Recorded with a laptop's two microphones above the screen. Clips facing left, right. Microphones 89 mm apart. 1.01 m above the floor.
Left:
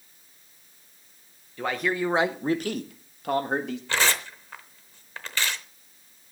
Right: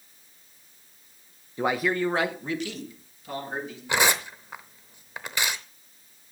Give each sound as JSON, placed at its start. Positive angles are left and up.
{"t": 1.6, "sound": "a man speaking", "side_deg": -20, "distance_m": 1.0}
{"t": 3.9, "sound": "tearing paper", "side_deg": -15, "distance_m": 0.8}